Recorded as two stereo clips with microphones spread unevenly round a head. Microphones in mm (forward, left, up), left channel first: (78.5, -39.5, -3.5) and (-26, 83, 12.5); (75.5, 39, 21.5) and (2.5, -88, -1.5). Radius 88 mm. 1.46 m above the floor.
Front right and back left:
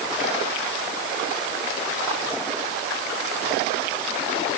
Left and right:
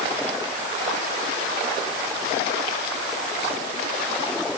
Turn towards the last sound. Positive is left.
No sound to turn to.